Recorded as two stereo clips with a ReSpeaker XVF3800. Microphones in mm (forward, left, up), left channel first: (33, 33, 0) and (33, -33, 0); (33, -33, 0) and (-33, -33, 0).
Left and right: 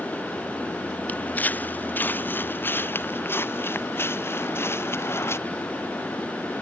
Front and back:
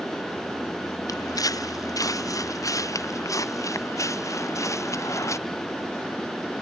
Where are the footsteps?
25° left; by 5.4 s 40° left.